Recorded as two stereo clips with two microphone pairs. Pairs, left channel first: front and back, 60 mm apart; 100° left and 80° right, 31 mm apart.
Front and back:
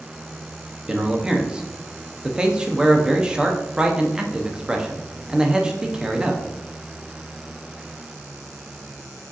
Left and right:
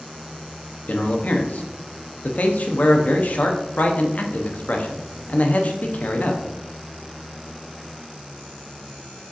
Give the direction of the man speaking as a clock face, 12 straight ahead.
8 o'clock.